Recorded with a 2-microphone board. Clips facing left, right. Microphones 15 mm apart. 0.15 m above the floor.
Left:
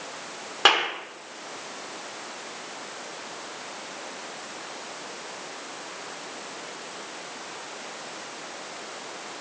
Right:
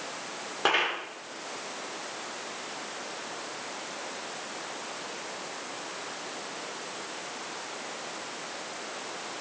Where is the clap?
45° left (ahead or behind), 5 m.